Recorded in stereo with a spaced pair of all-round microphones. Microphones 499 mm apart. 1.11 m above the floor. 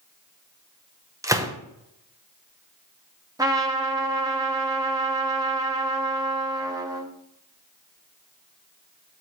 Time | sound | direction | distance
1.2 | a gunshot | 5° right (ahead or behind) | 0.8 m
3.4 | a trumpet | 5° right (ahead or behind) | 1.0 m